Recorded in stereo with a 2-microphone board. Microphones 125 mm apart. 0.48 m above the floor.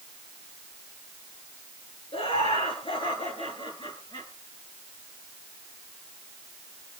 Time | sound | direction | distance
2.1 | laughter | 55° left (ahead or behind) | 7 m